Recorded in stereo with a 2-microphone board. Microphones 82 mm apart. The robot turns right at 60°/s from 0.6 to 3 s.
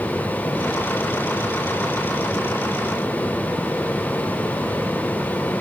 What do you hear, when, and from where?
Only background noise.